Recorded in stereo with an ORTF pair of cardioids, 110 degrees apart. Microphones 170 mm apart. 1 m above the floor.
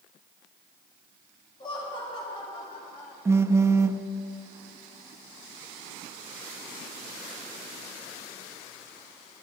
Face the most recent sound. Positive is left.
turn(degrees=-15)